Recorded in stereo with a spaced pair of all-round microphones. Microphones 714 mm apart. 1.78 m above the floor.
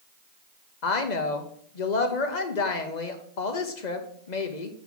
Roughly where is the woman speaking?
Left.